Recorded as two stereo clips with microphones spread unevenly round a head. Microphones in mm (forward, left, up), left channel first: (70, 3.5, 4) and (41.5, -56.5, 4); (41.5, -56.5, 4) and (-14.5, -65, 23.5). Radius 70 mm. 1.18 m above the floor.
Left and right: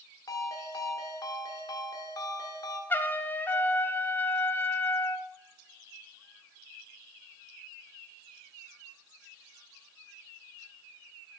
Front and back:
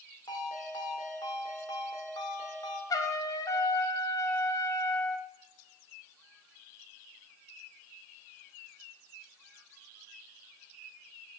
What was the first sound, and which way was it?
A ringtone, 50° left.